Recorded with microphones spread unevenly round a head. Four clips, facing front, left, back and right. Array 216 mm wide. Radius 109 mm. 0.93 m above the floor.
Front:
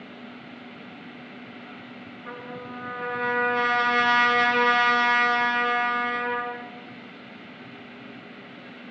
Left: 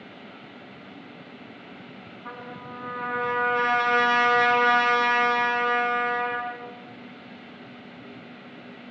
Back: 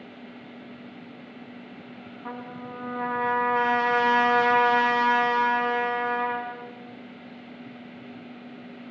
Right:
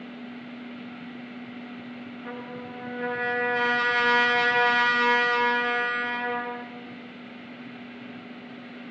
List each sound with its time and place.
2.2 s a trumpet: 170° right, 7.5 m